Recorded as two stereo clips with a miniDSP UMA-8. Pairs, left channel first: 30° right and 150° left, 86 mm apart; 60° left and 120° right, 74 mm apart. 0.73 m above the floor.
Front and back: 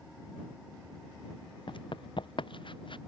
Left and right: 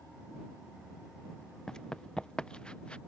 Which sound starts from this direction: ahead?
Running footsteps, at 1.7 s.